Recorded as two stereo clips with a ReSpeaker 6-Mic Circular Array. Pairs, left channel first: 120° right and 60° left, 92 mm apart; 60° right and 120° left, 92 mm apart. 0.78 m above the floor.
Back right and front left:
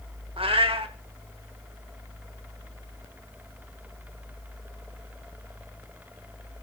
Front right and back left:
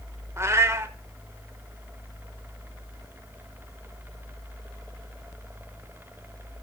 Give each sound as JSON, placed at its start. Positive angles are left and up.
{"t": 0.4, "sound": "a cat meowing", "azimuth_deg": 60, "distance_m": 0.9}